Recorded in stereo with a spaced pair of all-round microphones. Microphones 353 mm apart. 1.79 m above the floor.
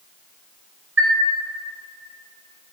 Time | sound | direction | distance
1.0 | a chime | 35° right (ahead or behind) | 0.7 m